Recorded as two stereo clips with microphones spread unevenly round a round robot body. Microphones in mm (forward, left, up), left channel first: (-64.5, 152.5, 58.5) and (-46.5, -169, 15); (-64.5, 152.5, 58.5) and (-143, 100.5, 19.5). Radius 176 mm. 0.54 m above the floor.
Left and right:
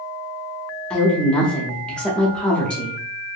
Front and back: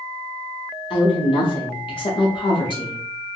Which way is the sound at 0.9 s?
5° right.